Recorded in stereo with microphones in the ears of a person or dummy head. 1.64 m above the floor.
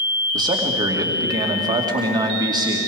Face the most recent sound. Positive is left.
turn(degrees=-20)  # may be behind; listen again after turning